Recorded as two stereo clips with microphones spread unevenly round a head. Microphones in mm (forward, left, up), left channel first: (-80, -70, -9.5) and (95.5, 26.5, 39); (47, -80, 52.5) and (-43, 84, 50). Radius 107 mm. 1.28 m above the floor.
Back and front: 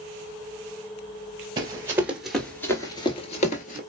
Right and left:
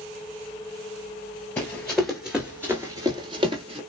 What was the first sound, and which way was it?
Running footsteps, 15° left.